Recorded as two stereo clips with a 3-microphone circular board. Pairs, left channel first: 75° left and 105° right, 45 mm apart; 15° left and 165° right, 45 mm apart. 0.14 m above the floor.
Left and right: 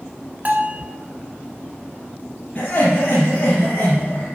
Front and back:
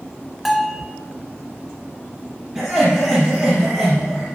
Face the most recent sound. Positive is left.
turn(degrees=130)